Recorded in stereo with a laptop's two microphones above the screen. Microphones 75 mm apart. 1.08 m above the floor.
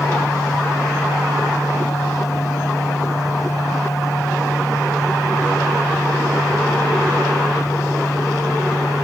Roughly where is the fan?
Left.